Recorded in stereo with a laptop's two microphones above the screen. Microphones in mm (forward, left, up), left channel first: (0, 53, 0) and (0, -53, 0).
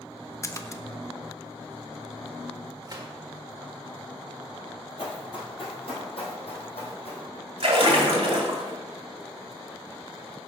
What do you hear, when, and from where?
0.4 s a splash: 30° left (ahead or behind), 0.5 m
2.9 s a gunshot: 35° right (ahead or behind), 1.3 m
5.0 s running footsteps: 50° left (ahead or behind), 1.7 m; by 7.2 s 65° left (ahead or behind), 2.5 m
7.6 s a splash: 60° right (ahead or behind), 1.8 m